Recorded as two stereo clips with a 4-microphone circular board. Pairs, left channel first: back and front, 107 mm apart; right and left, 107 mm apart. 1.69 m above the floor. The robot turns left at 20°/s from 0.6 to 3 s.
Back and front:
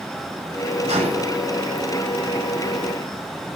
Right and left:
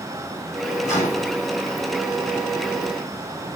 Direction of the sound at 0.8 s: 25° right.